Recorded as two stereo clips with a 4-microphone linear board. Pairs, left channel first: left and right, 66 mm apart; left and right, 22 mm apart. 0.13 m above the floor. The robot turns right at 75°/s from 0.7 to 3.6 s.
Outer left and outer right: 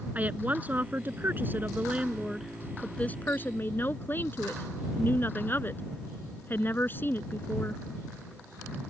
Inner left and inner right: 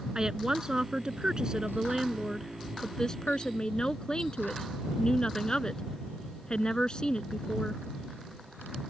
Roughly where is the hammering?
No hammering in this recording.